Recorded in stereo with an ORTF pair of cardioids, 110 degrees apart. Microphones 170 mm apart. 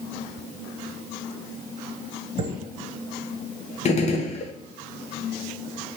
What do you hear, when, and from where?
2.4 s a chime: 30° right, 1.5 m
3.9 s a gunshot: 40° left, 0.7 m